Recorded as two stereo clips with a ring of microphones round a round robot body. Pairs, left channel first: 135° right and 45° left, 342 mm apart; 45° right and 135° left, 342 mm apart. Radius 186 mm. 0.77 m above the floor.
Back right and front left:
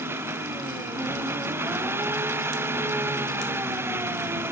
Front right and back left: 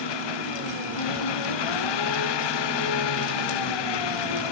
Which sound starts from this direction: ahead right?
An engine running, at 0.0 s.